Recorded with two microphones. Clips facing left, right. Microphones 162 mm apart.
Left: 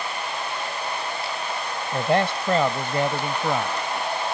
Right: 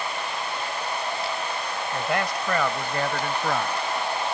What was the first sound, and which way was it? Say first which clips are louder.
A man speaking: left 6 dB; 35° left (ahead or behind).